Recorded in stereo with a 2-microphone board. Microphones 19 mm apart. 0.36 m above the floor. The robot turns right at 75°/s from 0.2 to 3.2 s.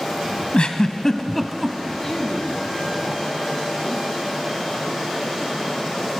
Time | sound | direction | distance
0.5 | a giggle | 60° left (ahead or behind) | 0.8 m
2.0 | a woman speaking | 35° left | 2.5 m